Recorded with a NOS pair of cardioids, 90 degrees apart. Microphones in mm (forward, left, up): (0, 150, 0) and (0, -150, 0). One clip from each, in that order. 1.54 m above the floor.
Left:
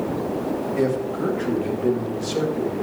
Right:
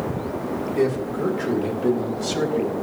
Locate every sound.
0.8 s a man speaking: 10° left, 3 m; by 2.7 s 25° right, 2 m